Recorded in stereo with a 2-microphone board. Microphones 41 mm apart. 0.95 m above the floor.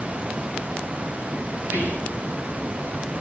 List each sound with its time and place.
1.6 s whispering: 65° right (ahead or behind), 10 m